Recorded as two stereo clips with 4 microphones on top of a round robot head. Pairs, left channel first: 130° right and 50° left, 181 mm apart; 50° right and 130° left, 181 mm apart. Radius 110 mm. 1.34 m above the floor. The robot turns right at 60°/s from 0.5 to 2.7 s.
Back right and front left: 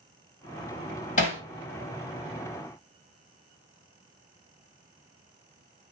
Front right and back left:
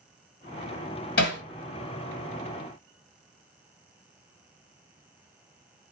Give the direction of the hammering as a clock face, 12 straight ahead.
3 o'clock.